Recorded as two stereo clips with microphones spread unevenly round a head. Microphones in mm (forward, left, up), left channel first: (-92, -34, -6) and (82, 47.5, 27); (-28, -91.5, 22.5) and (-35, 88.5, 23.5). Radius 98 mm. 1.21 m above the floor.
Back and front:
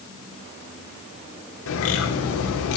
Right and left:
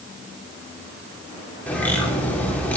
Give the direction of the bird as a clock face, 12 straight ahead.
6 o'clock.